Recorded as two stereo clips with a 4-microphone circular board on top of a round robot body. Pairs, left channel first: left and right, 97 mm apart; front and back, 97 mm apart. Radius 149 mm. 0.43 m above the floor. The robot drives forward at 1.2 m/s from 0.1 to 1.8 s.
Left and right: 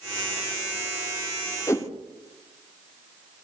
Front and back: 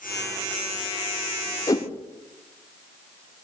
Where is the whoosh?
40° left, 2 m.